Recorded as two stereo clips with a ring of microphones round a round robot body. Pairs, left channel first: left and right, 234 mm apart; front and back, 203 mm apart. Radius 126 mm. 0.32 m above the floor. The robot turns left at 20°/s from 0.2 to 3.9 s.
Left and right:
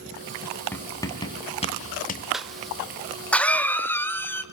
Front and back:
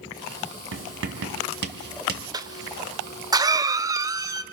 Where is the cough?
175° right, 0.9 m; by 4.4 s 150° left, 0.9 m.